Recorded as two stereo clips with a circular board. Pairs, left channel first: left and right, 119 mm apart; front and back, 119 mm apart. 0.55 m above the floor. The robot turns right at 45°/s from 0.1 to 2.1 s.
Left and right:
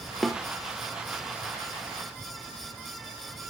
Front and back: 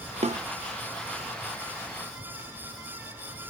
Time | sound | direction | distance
0.2 | a snare drum | straight behind | 0.6 m